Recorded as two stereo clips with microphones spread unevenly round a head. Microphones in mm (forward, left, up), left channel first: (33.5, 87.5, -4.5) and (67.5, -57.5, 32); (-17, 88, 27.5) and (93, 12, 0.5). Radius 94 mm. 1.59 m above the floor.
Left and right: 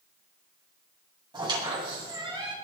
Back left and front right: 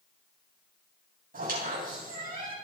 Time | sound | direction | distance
1.3 | a squeak | 15° right | 9 m